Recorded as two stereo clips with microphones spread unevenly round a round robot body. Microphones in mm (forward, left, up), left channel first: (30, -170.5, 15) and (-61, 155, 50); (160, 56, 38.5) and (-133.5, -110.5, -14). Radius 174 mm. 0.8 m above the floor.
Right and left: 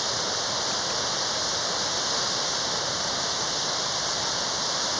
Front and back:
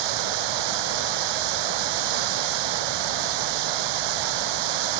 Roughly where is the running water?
Behind.